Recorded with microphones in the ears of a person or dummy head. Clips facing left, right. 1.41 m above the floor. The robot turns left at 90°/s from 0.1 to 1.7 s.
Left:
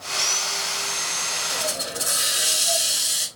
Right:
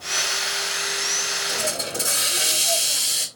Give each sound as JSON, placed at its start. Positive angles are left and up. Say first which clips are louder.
{"t": 1.5, "sound": "a hiss", "louder": "right 2 dB", "side_deg": -75, "distance_m": 1.5}